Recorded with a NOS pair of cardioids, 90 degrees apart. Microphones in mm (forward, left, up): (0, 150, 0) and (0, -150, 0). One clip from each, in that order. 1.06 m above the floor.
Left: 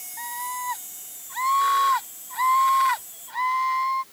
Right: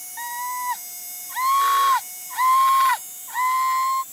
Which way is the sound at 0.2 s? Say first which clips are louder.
Right 3 dB; 20° right.